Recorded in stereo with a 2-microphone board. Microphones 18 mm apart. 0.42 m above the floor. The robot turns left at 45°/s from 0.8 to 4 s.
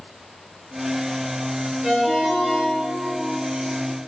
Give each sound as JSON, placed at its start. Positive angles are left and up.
{"t": 1.8, "sound": "a ringtone", "azimuth_deg": -15, "distance_m": 1.2}